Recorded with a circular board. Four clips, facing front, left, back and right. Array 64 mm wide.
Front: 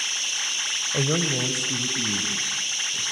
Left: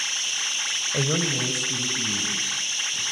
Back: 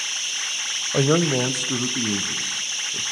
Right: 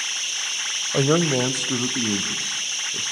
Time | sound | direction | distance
0.9 | a man speaking | 140° right | 0.9 m